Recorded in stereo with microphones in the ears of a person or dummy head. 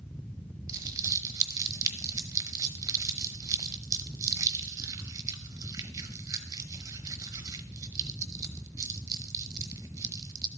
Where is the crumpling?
20° right (ahead or behind), 0.9 m.